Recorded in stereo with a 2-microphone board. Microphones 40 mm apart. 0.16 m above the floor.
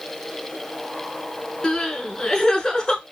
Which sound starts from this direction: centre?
Crying, at 1.6 s.